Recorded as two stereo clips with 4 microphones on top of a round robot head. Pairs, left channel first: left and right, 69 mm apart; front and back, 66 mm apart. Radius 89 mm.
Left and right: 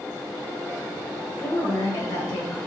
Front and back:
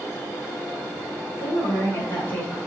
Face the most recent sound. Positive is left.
turn(degrees=80)